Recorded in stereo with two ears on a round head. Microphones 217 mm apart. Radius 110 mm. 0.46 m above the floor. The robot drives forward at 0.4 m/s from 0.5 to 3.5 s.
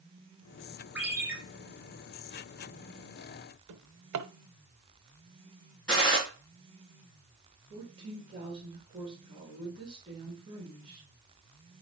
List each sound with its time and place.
0.9 s a ringtone: 5° right (ahead or behind), 3.5 m
3.7 s a drawer: 70° right (ahead or behind), 0.9 m
5.9 s a gunshot: 5° left (ahead or behind), 5.5 m
7.7 s a woman speaking: 25° right (ahead or behind), 4.5 m